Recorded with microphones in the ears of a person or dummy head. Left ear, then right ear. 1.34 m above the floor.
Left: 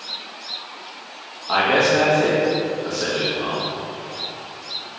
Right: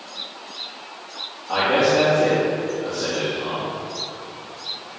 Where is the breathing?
I don't hear breathing.